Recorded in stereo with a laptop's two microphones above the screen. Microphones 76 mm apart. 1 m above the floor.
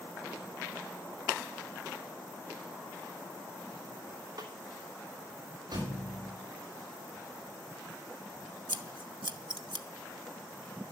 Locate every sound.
4.4 s a snare drum: 65° right (ahead or behind), 2.5 m
5.7 s a thud: 55° right (ahead or behind), 8 m
8.7 s scissors: 80° right, 0.9 m